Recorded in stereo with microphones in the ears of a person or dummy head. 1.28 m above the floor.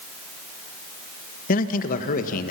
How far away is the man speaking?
About 1.7 m.